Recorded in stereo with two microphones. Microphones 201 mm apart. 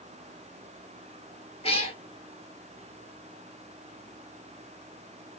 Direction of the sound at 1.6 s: 30° left (ahead or behind).